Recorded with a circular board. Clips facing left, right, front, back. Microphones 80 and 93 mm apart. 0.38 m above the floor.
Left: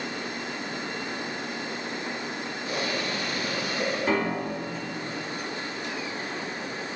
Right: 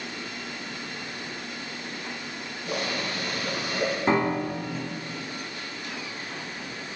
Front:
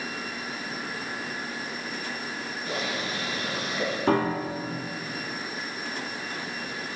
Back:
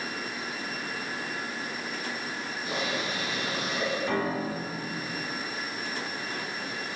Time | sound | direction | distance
2.6 | boiling | 110° right | 2.5 m
4.1 | a piano | 30° right | 0.8 m